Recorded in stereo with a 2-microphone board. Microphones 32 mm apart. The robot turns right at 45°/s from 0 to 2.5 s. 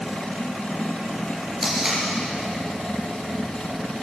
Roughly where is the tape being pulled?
Centre.